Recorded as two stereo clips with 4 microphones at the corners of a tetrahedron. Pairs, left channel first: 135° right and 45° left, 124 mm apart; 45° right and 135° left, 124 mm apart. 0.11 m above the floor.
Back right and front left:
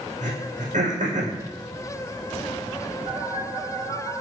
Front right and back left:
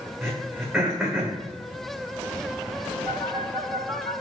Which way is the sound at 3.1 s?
75° left.